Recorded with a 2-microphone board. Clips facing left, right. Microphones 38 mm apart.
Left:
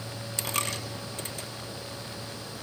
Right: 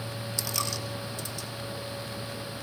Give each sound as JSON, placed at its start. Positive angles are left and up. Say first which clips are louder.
{"t": 0.4, "sound": "a dropped coin", "louder": "left 2 dB", "side_deg": 40, "distance_m": 2.5}